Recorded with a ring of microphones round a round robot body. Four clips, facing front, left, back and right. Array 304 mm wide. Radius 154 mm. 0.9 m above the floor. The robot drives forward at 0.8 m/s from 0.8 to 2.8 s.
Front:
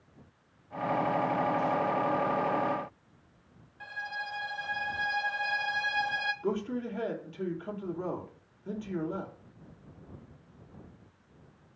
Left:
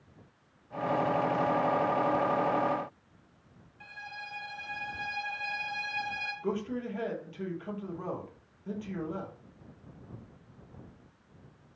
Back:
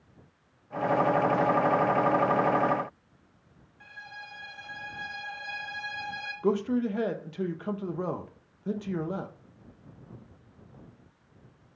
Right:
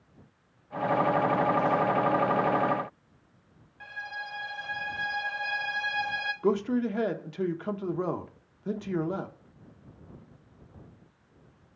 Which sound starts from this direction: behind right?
A man speaking, at 6.4 s.